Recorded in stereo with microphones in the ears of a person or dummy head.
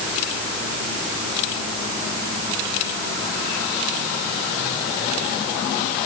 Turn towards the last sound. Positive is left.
No sound to turn to.